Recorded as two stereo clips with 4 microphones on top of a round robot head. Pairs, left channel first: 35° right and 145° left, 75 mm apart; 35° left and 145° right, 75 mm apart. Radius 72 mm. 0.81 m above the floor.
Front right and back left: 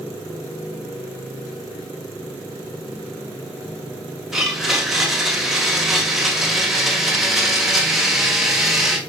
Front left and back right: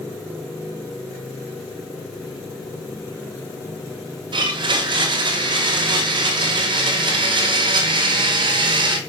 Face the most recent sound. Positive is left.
turn(degrees=-130)